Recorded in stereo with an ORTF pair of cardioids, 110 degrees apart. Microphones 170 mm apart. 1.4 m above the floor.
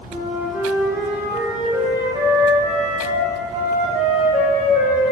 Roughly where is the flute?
Ahead.